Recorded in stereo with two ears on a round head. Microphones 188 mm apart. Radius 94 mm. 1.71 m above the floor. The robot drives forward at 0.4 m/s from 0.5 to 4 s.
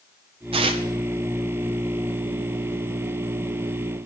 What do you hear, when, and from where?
0.5 s tearing paper: 25° right (ahead or behind), 0.6 m